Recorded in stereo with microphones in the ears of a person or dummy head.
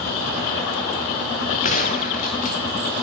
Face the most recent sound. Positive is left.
turn(degrees=35)  # may be behind; listen again after turning